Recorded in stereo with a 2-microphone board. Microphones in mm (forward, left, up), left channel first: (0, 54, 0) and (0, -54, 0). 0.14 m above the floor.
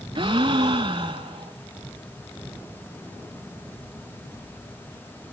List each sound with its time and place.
0.1 s a gasp: 50° right (ahead or behind), 0.6 m